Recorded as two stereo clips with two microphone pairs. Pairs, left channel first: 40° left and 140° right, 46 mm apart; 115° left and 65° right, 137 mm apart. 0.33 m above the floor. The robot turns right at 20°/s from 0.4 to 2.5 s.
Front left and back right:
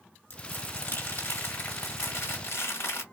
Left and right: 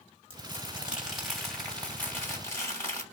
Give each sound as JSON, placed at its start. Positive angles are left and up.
{"t": 0.3, "sound": "crumpling", "azimuth_deg": 5, "distance_m": 2.0}